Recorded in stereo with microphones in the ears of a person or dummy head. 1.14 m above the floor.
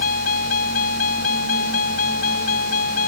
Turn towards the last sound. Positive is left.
turn(degrees=50)  # may be behind; listen again after turning